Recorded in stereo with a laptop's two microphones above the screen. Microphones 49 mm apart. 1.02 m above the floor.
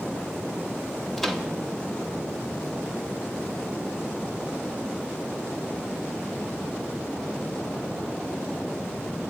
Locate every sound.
1.2 s a microwave: 5° left (ahead or behind), 1.3 m